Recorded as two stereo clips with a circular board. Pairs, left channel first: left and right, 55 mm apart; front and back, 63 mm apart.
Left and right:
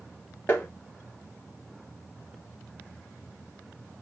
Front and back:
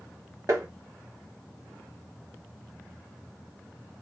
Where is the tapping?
145° left, 1.3 m.